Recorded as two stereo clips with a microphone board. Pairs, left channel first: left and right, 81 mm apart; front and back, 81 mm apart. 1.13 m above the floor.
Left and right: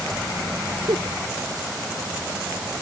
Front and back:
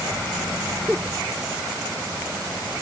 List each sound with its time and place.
0.9 s a giggle: 105° right